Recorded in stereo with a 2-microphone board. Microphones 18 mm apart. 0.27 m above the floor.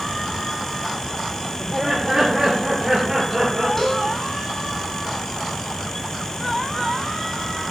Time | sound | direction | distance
1.6 | laughter | 20° right (ahead or behind) | 6.5 m
3.8 | a cowbell | 20° left (ahead or behind) | 3.5 m